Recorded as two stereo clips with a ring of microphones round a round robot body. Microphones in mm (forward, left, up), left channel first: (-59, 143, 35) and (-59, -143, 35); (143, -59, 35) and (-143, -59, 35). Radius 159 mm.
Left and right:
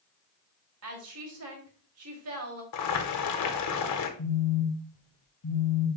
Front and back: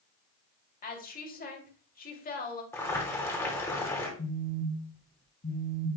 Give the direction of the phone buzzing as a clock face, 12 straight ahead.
10 o'clock.